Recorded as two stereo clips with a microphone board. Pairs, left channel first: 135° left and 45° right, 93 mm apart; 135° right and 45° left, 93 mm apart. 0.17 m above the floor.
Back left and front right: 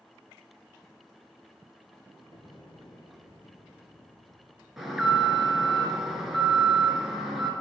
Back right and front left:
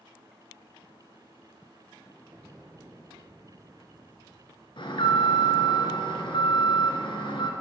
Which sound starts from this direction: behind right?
An alarm, at 4.8 s.